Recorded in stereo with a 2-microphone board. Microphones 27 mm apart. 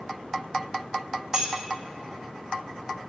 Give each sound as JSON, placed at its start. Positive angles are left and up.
{"t": 1.3, "sound": "keys jangling", "side_deg": -20, "distance_m": 0.7}